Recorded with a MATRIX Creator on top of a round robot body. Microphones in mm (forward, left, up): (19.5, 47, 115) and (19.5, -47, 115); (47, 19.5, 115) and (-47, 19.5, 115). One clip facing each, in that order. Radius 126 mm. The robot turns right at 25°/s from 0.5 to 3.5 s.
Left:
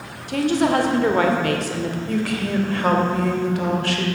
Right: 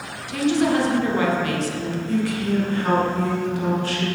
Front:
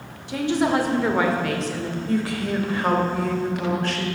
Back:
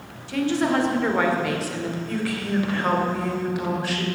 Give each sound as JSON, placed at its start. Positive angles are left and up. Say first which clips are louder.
{"t": 0.3, "sound": "a woman speaking", "louder": "left 1 dB, front 1 dB", "azimuth_deg": 70, "distance_m": 2.0}
{"t": 2.1, "sound": "a woman speaking", "louder": "right 3 dB, front 5 dB", "azimuth_deg": 60, "distance_m": 2.5}